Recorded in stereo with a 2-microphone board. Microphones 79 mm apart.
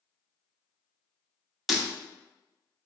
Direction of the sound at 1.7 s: Centre (ahead or behind).